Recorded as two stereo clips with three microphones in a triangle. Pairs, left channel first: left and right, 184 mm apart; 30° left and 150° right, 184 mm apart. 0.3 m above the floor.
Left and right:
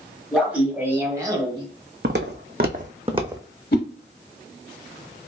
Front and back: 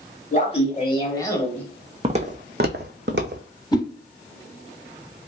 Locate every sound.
0.3 s laughter: 5° right, 1.3 m; by 1.6 s 50° right, 1.1 m
2.0 s footsteps: 95° right, 0.8 m; by 3.5 s 165° right, 0.8 m
3.7 s a whoosh: 90° left, 0.7 m